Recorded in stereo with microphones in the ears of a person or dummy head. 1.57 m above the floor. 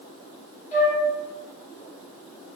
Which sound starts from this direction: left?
A flute, at 0.7 s.